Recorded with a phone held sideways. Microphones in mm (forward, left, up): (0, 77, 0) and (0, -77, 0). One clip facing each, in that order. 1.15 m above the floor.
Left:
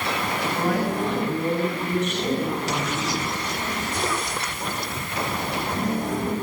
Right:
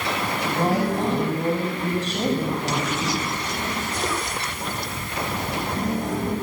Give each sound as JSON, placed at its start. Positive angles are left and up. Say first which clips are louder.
{"t": 0.5, "sound": "a woman speaking", "louder": "right 2 dB", "side_deg": -30, "distance_m": 8.0}